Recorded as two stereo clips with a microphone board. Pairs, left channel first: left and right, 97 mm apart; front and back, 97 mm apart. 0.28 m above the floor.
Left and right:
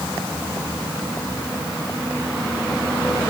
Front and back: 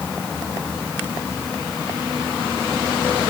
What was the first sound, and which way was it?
Only background noise.